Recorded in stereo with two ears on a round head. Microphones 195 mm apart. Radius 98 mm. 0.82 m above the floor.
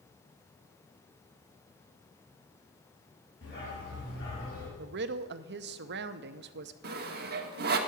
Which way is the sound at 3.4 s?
55° left (ahead or behind).